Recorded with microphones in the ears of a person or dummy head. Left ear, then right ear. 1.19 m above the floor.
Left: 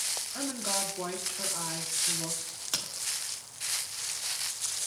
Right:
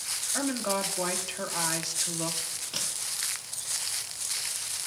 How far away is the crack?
About 2.5 m.